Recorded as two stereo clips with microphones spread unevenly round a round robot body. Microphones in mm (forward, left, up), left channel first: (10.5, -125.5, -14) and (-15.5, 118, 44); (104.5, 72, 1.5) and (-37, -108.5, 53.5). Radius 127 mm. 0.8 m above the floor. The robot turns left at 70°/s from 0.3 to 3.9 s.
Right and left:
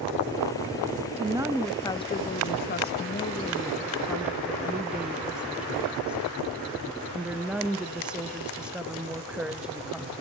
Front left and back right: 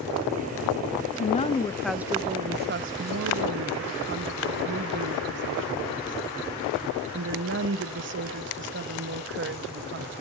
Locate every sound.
1.2 s a woman speaking: 25° left, 0.6 m; by 10.1 s 165° right, 0.6 m